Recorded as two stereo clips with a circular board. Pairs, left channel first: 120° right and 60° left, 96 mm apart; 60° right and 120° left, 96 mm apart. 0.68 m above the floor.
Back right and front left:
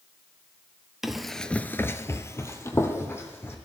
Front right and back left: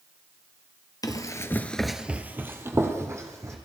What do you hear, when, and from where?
1.0 s running footsteps: 25° right, 0.9 m; by 3.6 s 175° left, 2.5 m